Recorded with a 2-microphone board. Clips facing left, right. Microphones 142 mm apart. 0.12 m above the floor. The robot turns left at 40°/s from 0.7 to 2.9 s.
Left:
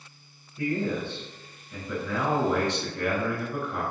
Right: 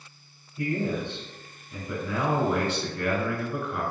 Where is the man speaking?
20° right (ahead or behind), 1.1 m; by 3.8 s 5° right (ahead or behind), 1.1 m.